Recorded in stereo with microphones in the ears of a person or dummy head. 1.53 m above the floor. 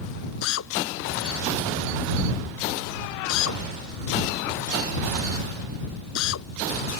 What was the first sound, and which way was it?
A drill, 75° left (ahead or behind).